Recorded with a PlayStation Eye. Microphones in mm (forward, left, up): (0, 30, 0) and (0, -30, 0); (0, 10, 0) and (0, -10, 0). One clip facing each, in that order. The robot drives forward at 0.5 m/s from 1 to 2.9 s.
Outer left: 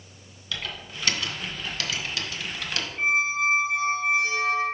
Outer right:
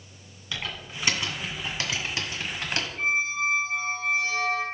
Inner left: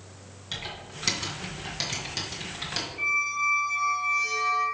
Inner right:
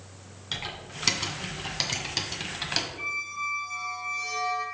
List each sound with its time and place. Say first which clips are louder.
0.5 s typing on a keyboard: even, inner right 2 dB; 20° right (ahead or behind), 1.9 m; by 2.9 s 35° right (ahead or behind), 1.3 m
3.0 s a squeak: outer left 3 dB, inner left 6 dB; 20° left (ahead or behind), 2.5 m